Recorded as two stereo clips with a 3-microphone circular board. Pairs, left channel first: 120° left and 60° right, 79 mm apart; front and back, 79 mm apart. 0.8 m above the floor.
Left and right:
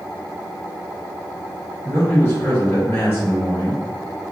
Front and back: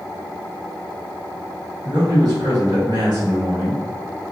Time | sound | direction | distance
1.8 | a man speaking | 175° right | 1.5 m